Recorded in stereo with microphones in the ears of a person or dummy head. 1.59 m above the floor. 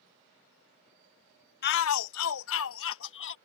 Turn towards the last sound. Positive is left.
turn(degrees=60)  # may be behind; listen again after turning